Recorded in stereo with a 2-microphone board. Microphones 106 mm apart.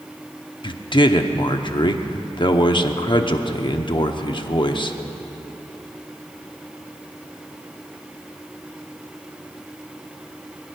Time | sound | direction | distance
0.6 | a man speaking | 45° left (ahead or behind) | 0.9 m